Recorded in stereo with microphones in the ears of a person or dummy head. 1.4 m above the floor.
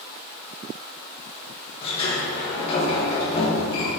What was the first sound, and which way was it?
A sliding door, 35° left (ahead or behind).